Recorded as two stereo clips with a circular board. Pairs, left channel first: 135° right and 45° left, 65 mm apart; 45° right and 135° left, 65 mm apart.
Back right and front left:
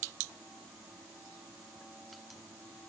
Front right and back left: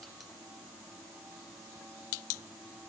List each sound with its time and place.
Only background noise.